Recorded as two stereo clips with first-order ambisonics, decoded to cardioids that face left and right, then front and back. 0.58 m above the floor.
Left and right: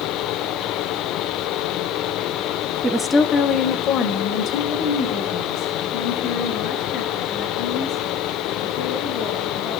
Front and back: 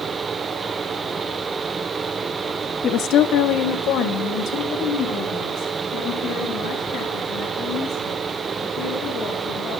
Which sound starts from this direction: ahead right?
A woman speaking, at 2.8 s.